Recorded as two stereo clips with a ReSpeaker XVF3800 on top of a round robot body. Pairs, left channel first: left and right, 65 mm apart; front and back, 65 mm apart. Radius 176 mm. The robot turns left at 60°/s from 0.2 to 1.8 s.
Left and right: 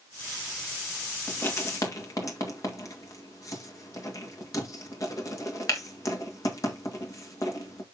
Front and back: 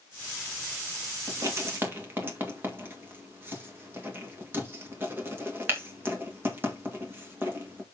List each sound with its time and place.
1.3 s writing: 155° left, 2.5 m; by 7.8 s 125° left, 2.5 m